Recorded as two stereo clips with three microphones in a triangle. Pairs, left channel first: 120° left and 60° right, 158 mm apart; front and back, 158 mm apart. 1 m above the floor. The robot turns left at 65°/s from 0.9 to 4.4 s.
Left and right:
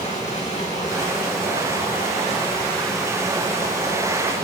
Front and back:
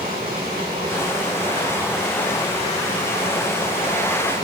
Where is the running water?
165° left, 4 m; by 4.4 s 65° right, 4 m.